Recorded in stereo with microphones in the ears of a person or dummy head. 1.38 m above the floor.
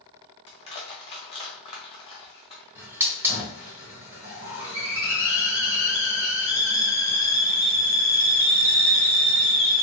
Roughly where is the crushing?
Left.